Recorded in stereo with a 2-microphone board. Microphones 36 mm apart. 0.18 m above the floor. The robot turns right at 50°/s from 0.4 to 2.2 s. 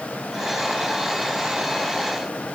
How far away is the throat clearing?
No throat clearing in this recording.